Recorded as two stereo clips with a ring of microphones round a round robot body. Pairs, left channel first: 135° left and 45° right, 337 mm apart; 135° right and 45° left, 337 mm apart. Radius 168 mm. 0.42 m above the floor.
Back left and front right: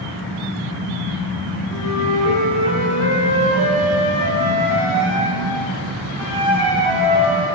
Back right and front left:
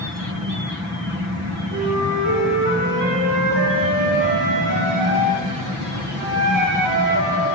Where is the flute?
10° left, 3 m.